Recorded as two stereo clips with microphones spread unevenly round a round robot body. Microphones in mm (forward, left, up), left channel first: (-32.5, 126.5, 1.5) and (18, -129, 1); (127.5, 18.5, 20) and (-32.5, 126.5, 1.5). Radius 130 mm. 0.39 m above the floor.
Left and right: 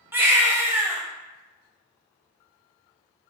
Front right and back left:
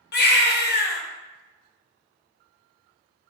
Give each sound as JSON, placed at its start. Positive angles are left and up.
{"t": 0.1, "sound": "a baby crying", "azimuth_deg": 0, "distance_m": 0.6}